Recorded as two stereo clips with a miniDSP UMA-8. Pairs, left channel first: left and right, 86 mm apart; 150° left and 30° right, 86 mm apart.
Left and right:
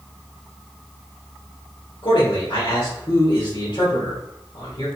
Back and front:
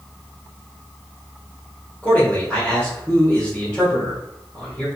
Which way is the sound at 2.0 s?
70° left.